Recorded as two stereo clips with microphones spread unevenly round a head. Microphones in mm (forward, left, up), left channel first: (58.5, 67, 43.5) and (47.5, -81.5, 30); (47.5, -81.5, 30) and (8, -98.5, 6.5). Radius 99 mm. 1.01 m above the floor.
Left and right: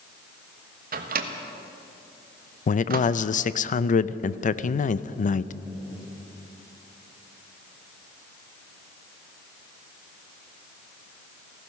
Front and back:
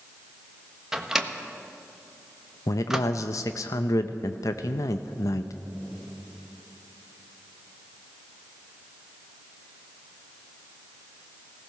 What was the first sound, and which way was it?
A microwave, 85° right.